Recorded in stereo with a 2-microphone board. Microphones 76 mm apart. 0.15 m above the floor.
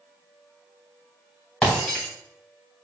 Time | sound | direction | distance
1.6 | breaking glass | 5° left (ahead or behind) | 4 m